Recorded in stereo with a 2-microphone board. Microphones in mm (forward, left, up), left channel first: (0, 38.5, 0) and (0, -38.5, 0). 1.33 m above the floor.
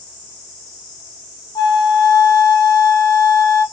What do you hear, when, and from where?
1.6 s a flute: 70° left (ahead or behind), 0.7 m